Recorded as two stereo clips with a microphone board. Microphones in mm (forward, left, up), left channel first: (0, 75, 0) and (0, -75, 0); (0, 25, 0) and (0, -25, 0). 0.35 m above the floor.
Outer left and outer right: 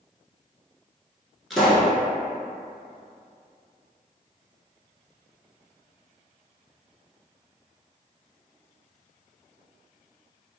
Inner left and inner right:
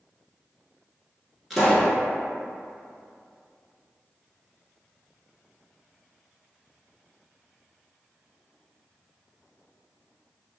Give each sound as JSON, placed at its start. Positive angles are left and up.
{"t": 1.5, "sound": "a pop", "side_deg": 0, "distance_m": 1.0}